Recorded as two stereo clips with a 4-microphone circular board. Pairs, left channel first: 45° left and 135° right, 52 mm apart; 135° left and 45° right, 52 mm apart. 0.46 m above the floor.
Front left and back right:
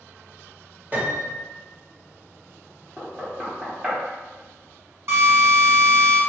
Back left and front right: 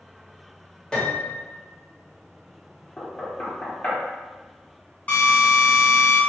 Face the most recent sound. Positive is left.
turn(degrees=-170)